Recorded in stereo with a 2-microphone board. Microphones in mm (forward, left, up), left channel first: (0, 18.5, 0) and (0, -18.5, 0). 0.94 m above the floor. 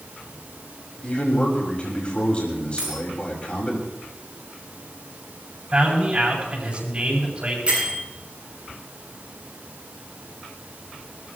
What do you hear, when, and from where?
1.0 s a man speaking: 30° left (ahead or behind), 6 m
2.8 s a dropped coin: 20° right (ahead or behind), 7.5 m
5.7 s a man speaking: 30° right (ahead or behind), 7.5 m
7.7 s a bell: 30° right (ahead or behind), 8.5 m